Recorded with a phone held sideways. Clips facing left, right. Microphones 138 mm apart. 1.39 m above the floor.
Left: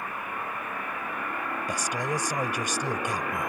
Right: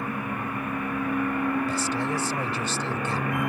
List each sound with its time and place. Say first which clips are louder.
0.0 s a machine running: right 5 dB; 70° right (ahead or behind)
1.7 s a man speaking: right 3 dB; 15° left (ahead or behind)